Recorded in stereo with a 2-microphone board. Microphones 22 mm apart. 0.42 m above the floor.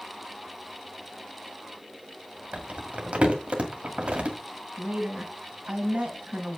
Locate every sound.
2.5 s crumpling: 70° right (ahead or behind), 1.9 m
4.8 s a woman speaking: 60° right (ahead or behind), 2.5 m